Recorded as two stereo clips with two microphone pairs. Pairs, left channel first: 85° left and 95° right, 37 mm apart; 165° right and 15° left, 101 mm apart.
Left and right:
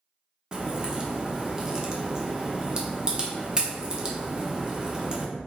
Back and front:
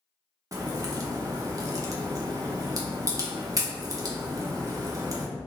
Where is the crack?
25° right, 0.6 m.